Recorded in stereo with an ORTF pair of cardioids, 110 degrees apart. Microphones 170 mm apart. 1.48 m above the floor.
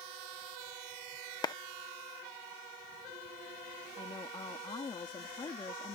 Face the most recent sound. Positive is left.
turn(degrees=30)